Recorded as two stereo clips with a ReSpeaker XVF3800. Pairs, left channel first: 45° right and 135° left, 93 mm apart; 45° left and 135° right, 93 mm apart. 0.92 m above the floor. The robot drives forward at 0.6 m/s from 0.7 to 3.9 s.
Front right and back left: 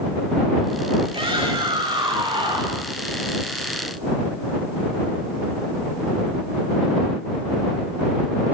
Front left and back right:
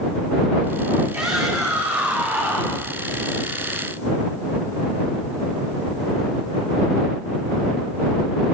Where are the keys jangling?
I don't hear keys jangling.